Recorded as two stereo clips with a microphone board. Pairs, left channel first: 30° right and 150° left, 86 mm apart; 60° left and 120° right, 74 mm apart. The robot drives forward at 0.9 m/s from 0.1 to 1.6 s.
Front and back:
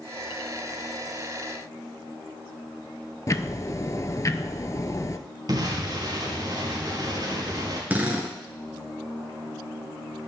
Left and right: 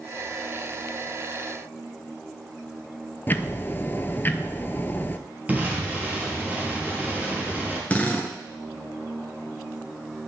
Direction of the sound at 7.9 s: 105° left.